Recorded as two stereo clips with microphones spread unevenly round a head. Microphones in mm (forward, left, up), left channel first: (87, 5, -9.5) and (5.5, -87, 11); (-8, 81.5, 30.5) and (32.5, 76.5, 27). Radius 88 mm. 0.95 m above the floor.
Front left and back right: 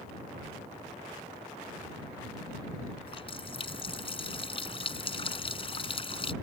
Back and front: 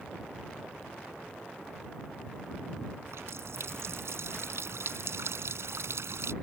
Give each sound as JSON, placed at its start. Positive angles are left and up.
{"t": 3.0, "sound": "a running tap", "azimuth_deg": 5}